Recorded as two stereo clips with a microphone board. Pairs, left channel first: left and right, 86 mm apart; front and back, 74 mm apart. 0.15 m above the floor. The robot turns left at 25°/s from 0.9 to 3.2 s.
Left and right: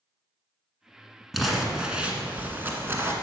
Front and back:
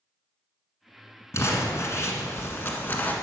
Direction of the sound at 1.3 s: 5° right.